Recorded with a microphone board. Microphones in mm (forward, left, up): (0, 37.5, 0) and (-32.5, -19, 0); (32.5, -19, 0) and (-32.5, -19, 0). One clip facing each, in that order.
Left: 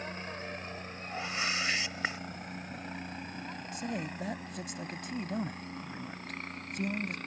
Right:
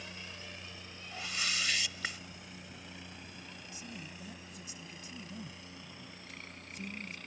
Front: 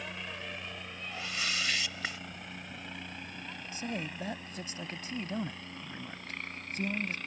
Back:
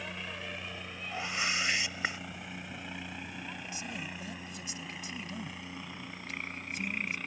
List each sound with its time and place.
0.0 s a helicopter: 95° left; by 7.3 s 100° left
1.1 s a whoosh: 120° left
3.7 s a man speaking: 45° left